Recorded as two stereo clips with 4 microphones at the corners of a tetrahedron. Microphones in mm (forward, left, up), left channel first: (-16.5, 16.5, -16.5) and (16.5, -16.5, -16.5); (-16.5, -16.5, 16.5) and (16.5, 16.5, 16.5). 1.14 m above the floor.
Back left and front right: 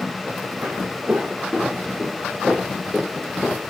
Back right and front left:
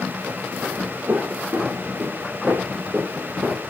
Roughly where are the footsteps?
Ahead.